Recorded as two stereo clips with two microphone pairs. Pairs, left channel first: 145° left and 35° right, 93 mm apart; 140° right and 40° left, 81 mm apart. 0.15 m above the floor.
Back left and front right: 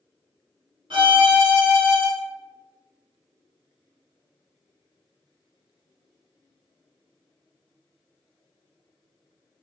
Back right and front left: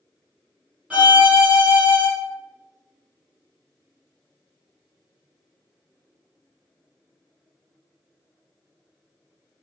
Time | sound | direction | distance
0.9 | a violin | 35° right | 1.3 m